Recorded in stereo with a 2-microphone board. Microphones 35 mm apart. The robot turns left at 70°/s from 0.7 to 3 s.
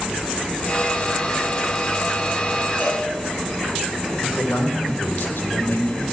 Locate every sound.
2.8 s a cowbell: 70° left (ahead or behind), 7 m; by 3.0 s 55° left (ahead or behind), 7 m
4.2 s a man speaking: 85° left, 3.5 m